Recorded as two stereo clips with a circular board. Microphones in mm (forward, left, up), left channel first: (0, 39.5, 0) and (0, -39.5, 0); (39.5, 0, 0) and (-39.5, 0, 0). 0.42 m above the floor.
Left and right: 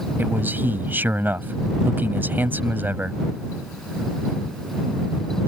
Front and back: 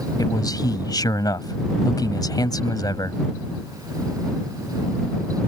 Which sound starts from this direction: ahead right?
A man speaking, at 0.2 s.